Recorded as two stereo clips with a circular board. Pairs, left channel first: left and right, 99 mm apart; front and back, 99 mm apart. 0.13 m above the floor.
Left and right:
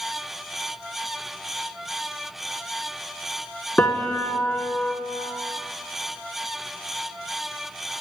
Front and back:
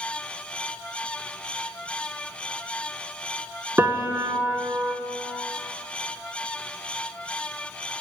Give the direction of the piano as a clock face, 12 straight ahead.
7 o'clock.